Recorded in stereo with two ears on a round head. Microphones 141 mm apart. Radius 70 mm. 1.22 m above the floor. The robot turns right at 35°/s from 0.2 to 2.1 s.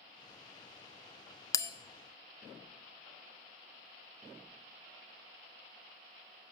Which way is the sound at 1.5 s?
20° left (ahead or behind).